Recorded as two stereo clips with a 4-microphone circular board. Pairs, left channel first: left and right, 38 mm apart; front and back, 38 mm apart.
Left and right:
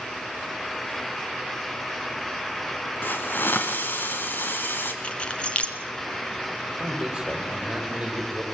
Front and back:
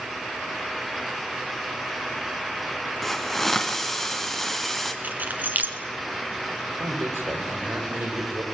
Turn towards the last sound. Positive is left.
turn(degrees=-165)